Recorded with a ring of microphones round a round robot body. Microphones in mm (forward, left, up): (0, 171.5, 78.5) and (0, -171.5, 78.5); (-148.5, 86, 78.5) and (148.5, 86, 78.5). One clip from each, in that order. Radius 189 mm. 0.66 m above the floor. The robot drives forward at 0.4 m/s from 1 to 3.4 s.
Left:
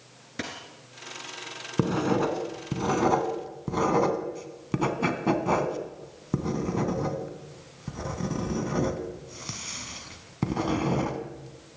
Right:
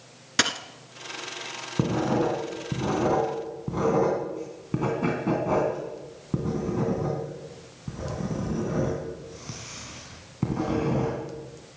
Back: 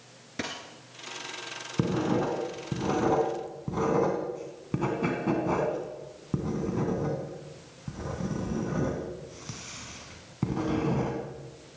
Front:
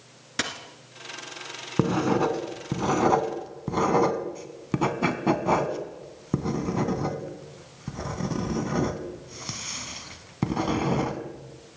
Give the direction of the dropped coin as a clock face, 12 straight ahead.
2 o'clock.